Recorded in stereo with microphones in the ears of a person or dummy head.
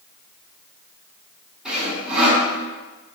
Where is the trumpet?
I don't hear a trumpet.